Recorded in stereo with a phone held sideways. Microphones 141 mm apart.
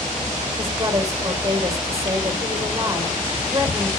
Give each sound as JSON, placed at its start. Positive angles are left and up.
{"t": 0.6, "sound": "a woman speaking", "side_deg": -20, "distance_m": 4.0}